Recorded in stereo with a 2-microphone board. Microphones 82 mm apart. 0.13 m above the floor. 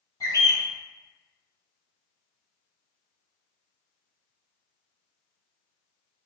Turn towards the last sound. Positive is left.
turn(degrees=50)  # may be behind; listen again after turning